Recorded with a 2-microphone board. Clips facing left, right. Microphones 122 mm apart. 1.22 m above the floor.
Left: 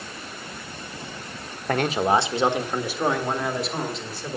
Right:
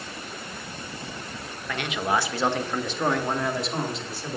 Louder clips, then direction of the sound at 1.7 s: Left 6 dB; 50° left (ahead or behind).